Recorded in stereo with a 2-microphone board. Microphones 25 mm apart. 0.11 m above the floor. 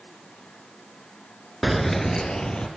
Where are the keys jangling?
5° right (ahead or behind), 0.8 m; by 2.7 s 40° left (ahead or behind), 1.7 m.